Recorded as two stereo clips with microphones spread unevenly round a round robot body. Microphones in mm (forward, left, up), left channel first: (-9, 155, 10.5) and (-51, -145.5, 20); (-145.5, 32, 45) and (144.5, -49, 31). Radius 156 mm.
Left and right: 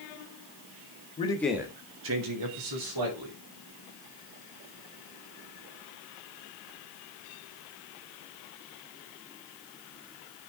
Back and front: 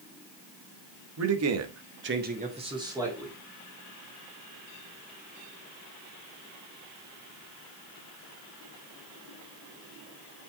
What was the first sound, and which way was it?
A man speaking, 15° left.